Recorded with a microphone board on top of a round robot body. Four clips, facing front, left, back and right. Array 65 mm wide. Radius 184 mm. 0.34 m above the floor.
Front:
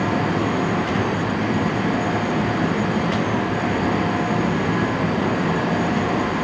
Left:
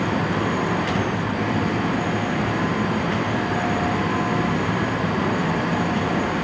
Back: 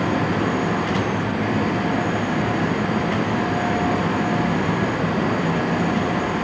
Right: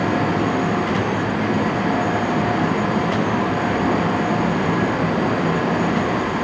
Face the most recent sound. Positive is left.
No sound to turn to.